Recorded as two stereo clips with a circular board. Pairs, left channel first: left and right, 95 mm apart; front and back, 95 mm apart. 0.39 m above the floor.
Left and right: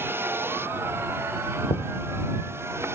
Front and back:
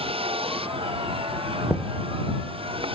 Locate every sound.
0.0 s a vehicle: 155° right
1.7 s knocking: 95° left